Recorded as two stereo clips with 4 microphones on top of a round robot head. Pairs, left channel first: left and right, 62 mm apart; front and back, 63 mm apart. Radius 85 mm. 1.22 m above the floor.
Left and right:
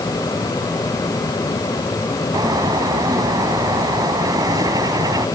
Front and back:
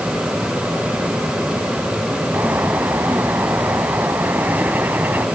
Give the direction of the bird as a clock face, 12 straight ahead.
4 o'clock.